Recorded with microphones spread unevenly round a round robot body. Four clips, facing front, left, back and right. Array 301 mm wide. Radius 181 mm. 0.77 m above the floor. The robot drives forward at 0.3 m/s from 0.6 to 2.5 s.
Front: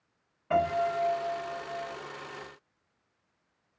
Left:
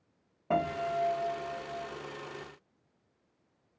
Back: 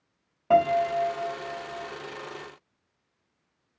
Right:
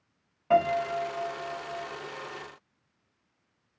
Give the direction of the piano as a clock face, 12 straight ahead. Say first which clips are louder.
Right 6 dB, back 6 dB; 8 o'clock.